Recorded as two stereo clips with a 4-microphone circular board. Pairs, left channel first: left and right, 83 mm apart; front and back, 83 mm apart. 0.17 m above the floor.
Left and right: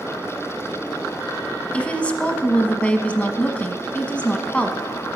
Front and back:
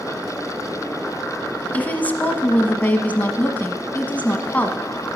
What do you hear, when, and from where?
1.7 s a woman speaking: 40° left, 1.0 m